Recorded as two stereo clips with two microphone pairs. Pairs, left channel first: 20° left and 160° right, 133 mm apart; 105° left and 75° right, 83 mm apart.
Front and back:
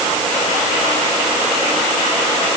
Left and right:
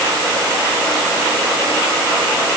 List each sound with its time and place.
Only background noise.